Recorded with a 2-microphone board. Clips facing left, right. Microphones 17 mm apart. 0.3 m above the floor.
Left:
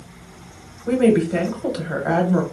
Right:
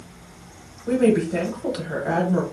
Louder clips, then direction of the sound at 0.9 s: Left 2 dB; 35° left (ahead or behind).